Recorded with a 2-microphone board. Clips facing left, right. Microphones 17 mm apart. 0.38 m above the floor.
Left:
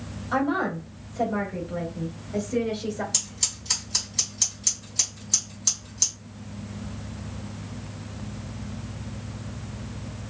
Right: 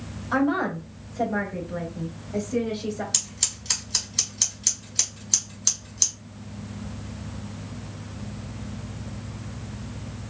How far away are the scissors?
About 1.4 m.